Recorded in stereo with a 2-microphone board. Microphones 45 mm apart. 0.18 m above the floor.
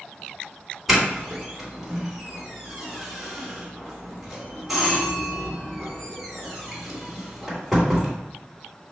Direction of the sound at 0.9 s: 5° right (ahead or behind).